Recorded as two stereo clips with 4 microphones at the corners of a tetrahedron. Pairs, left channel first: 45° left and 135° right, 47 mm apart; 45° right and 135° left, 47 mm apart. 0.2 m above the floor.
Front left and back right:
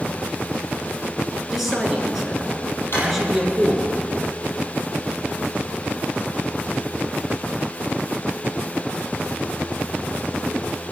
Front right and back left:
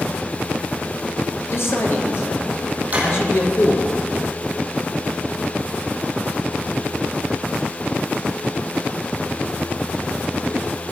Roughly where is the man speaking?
Ahead right.